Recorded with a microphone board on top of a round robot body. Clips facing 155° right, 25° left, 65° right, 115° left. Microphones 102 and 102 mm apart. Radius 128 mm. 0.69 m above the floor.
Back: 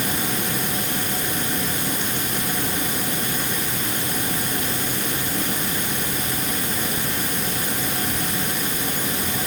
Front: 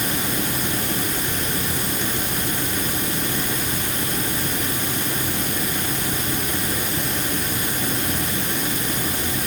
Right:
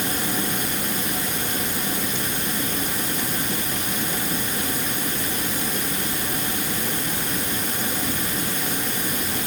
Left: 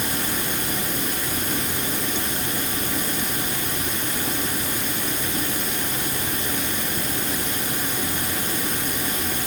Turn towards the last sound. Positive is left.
No sound to turn to.